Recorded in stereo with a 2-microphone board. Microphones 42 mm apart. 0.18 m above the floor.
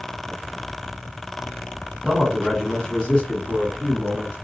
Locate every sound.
2.0 s a man speaking: centre (ahead or behind), 1.4 m; by 4.3 s 45° left (ahead or behind), 1.9 m